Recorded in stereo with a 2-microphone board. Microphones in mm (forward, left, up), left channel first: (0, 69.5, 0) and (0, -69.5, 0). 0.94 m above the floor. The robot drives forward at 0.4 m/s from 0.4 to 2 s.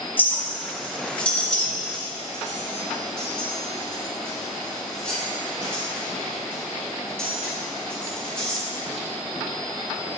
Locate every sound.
0.2 s a clink: 15° left (ahead or behind), 0.5 m; by 8.6 s 5° left (ahead or behind), 1.1 m